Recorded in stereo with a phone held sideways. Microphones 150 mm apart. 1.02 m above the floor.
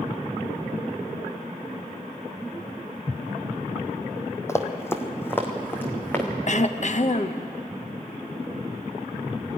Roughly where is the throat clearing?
Left.